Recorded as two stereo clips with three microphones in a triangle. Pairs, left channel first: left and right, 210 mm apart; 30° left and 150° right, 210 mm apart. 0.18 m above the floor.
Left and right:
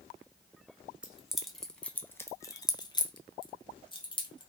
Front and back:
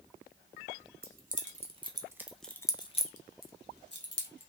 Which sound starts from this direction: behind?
Keys jangling, at 1.0 s.